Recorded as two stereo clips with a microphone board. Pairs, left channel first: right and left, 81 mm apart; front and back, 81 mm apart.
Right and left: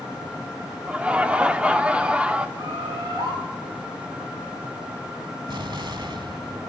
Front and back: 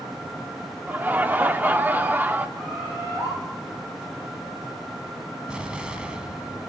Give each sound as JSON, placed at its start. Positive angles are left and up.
{"t": 0.9, "sound": "laughter", "azimuth_deg": 145, "distance_m": 0.7}
{"t": 2.6, "sound": "a bird", "azimuth_deg": 110, "distance_m": 8.5}
{"t": 5.5, "sound": "an explosion", "azimuth_deg": 100, "distance_m": 0.9}